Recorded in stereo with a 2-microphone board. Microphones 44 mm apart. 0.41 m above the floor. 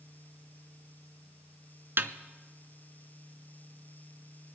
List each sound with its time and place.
2.0 s a snare drum: 55° right (ahead or behind), 0.6 m